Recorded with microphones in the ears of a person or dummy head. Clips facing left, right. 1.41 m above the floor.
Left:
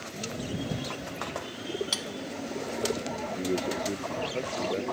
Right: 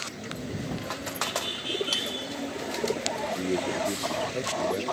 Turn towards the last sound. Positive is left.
turn(degrees=-5)  # may be behind; listen again after turning